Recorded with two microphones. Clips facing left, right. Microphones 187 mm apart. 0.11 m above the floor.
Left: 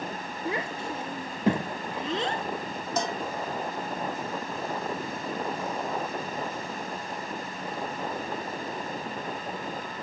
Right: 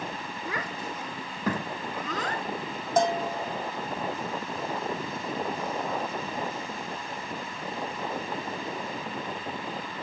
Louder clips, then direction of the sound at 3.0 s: Right 6 dB; 50° right (ahead or behind).